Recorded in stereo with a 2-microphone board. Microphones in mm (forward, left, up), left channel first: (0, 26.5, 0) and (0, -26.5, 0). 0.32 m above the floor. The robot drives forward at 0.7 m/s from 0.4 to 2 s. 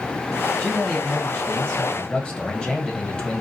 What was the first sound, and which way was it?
A man speaking, 10° left (ahead or behind).